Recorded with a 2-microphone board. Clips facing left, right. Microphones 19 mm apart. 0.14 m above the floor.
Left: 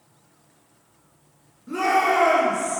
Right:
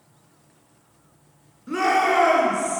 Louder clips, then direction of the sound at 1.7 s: Even; 40° right (ahead or behind).